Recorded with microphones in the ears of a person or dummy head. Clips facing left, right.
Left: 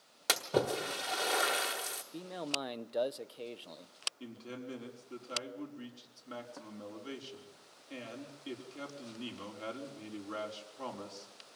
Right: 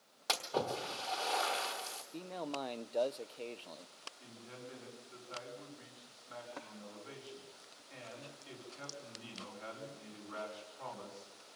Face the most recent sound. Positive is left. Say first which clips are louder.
# left 7 dB
turn(degrees=65)  # may be behind; listen again after turning